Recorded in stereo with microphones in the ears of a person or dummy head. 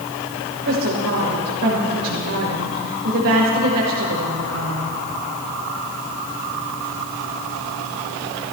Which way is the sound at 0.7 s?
75° right (ahead or behind).